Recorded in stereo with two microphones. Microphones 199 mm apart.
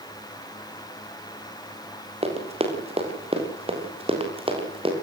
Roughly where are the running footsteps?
Right.